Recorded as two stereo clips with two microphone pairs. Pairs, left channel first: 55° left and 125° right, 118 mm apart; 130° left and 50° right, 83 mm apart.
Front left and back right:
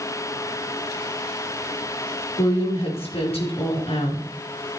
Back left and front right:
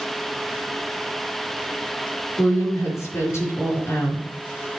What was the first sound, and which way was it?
A woman speaking, 80° left.